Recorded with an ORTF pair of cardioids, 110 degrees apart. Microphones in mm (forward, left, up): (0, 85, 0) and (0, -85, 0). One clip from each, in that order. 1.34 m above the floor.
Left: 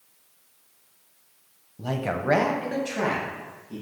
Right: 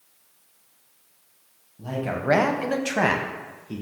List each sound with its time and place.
1.8 s a man speaking: 35° left, 0.6 m; by 3.8 s 65° right, 1.3 m